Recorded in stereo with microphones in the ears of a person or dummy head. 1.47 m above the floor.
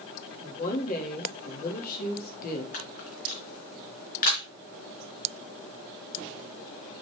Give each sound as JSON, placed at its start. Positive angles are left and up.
{"t": 0.4, "sound": "a woman speaking", "side_deg": 45, "distance_m": 3.0}
{"t": 2.7, "sound": "a camera shutter", "side_deg": 50, "distance_m": 3.0}